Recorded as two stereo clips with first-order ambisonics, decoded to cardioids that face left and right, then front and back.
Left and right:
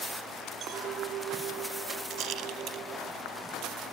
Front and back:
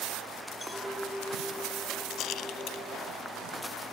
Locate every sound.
0.6 s a clink: 95° right, 0.7 m
2.1 s a rattle: 45° right, 0.8 m